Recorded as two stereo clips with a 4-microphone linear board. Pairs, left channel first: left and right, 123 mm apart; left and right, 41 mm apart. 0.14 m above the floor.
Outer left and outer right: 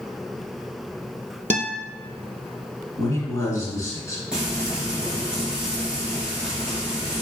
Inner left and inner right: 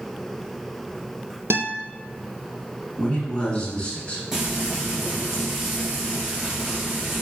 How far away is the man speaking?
About 1.4 m.